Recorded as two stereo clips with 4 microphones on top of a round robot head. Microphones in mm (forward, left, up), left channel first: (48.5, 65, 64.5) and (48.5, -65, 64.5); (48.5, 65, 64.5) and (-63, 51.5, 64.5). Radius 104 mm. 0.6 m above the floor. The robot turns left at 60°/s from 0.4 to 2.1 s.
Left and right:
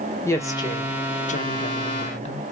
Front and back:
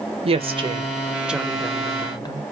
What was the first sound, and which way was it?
A woman speaking, 160° left.